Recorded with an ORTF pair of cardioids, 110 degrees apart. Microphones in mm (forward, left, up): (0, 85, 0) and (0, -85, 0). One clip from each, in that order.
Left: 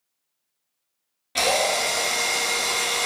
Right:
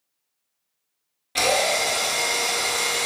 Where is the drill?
5° left, 0.8 m.